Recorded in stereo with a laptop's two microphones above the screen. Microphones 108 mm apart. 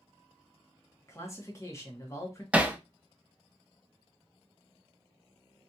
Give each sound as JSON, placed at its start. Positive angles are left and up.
{"t": 1.1, "sound": "a man speaking", "side_deg": 25, "distance_m": 1.4}
{"t": 2.5, "sound": "hammering", "side_deg": -10, "distance_m": 0.6}